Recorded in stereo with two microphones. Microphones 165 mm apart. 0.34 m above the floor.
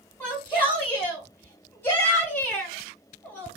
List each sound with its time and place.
0.2 s a shout: 10° left (ahead or behind), 1.5 m